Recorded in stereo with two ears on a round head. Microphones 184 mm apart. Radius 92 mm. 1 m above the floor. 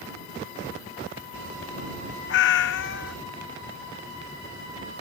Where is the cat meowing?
60° left (ahead or behind).